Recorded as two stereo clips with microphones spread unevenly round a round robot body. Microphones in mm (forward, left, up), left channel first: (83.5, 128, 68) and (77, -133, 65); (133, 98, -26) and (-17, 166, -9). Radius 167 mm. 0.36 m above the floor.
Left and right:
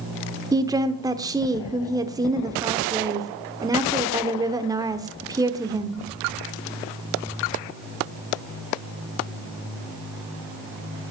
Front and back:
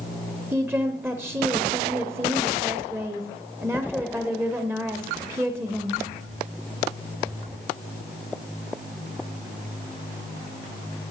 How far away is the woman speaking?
About 0.9 m.